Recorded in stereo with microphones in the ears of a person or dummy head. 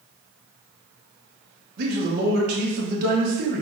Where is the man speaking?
55° right (ahead or behind), 1.2 m.